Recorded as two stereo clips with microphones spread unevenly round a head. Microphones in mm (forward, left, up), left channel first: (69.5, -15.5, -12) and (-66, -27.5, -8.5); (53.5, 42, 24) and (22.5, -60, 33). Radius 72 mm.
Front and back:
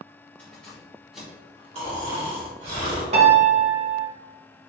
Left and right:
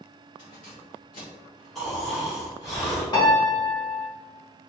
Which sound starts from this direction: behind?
Snoring, at 1.8 s.